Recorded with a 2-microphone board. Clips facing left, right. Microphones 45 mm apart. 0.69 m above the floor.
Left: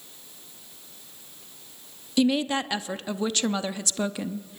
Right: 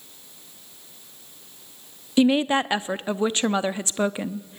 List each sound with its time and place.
2.2 s a woman speaking: 25° right (ahead or behind), 0.6 m